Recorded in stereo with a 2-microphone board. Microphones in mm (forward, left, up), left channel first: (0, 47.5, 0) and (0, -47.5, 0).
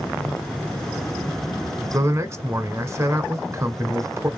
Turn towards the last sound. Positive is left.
turn(degrees=-30)  # may be behind; listen again after turning